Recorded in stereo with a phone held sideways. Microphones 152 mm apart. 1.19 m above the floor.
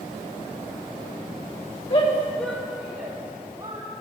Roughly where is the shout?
Left.